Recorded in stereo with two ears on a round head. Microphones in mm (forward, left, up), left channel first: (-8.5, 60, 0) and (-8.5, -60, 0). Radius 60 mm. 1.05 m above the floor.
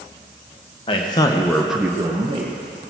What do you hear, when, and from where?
0.9 s a man speaking: 40° left (ahead or behind), 1.2 m; by 2.6 s 40° right (ahead or behind), 1.4 m